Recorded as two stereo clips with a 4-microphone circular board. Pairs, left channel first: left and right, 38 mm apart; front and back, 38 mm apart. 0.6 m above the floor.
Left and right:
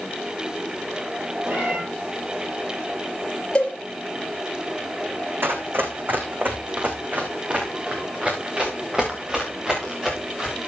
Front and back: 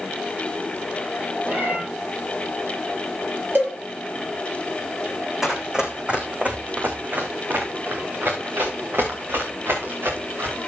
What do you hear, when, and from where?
1.5 s a cat meowing: 125° right, 9 m
3.5 s a cowbell: 155° left, 5 m
5.4 s running footsteps: 100° right, 2.5 m; by 10.6 s 170° right, 7 m